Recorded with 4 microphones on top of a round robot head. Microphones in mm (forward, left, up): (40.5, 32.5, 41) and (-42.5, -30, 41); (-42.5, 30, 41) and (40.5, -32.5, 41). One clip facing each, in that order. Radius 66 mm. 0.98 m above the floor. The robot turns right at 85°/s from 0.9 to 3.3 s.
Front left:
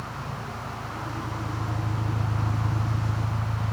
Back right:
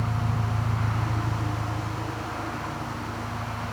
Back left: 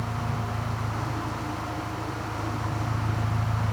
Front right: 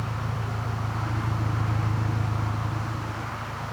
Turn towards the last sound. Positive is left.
turn(degrees=90)